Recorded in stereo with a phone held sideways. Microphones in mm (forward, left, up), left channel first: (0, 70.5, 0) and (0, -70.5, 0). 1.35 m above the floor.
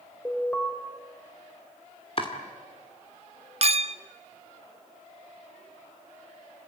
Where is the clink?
50° right (ahead or behind), 0.5 m.